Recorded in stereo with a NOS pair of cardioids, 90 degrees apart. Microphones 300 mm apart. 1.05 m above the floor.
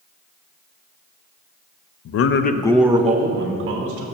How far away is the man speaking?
About 0.8 m.